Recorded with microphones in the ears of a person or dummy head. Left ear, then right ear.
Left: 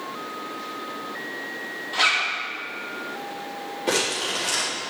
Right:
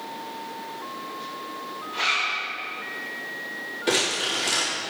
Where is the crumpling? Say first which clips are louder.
Right 1 dB; 5° right (ahead or behind), 4 m.